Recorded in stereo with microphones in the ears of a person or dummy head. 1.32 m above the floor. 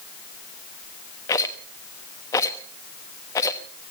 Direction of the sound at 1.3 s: 20° left (ahead or behind).